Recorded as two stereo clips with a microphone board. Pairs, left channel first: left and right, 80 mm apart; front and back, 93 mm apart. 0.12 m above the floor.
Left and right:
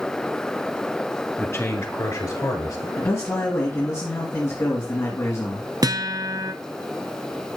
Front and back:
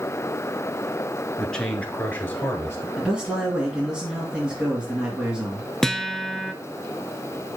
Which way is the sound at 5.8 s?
85° right.